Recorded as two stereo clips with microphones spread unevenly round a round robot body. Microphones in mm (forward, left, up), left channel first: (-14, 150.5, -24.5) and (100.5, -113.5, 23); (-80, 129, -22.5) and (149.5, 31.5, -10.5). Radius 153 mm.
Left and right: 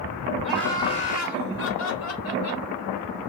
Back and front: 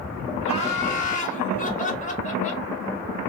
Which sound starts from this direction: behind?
Laughter, at 0.4 s.